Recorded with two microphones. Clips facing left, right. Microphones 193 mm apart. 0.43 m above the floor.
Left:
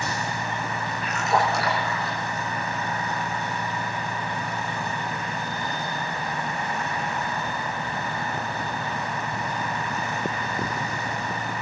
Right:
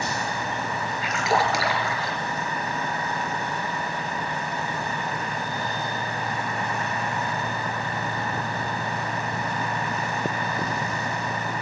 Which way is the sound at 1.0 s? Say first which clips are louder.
Even; 80° right.